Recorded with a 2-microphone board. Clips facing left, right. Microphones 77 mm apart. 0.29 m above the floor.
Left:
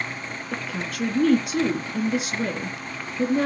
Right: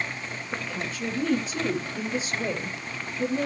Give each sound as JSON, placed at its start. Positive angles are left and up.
{"t": 0.5, "sound": "a woman speaking", "side_deg": 75, "distance_m": 3.0}